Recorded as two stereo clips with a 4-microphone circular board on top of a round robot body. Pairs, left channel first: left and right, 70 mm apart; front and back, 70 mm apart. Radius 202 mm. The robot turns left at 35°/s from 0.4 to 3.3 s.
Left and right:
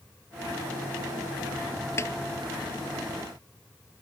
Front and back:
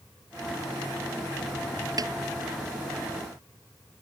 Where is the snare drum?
145° left; by 2.1 s 140° left.